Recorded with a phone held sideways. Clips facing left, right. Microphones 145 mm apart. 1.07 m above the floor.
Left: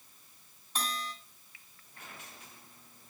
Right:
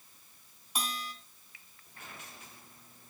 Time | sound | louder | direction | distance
0.8 | a bell | left 1 dB | 10° right (ahead or behind) | 2.5 m